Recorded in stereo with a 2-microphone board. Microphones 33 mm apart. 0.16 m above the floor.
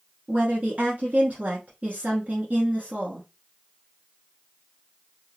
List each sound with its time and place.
0.3 s a woman speaking: 50° right (ahead or behind), 1.6 m